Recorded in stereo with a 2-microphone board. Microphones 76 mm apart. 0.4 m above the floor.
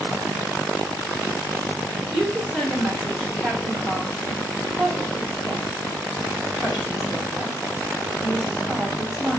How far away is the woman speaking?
About 1.4 m.